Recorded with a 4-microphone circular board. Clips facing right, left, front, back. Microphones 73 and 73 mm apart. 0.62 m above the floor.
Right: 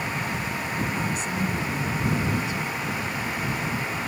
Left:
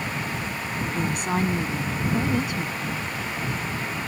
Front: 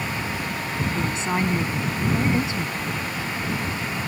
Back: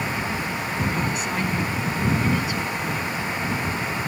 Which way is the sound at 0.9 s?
60° left.